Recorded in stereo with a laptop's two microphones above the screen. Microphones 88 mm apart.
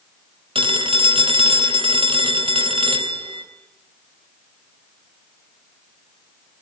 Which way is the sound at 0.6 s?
85° right.